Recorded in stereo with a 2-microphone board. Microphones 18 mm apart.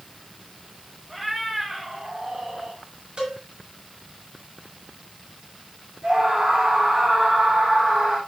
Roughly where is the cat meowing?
Centre.